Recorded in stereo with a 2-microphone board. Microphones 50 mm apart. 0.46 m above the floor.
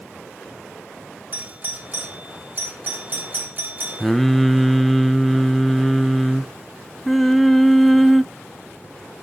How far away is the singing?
About 0.9 m.